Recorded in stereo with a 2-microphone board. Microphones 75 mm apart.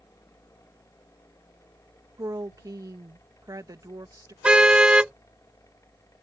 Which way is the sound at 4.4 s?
15° right (ahead or behind).